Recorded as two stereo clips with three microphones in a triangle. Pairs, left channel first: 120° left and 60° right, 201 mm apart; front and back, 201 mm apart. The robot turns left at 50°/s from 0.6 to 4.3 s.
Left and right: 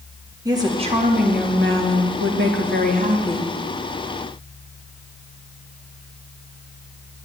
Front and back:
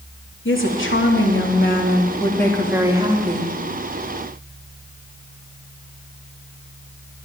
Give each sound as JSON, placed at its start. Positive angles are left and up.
{"t": 0.5, "sound": "a woman speaking", "azimuth_deg": 10, "distance_m": 3.0}